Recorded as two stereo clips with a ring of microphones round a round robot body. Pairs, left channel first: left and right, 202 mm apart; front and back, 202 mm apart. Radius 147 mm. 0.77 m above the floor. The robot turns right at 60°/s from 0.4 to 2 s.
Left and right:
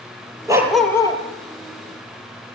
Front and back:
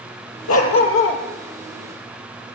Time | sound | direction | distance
0.5 | a dog barking | 15° right | 4.5 m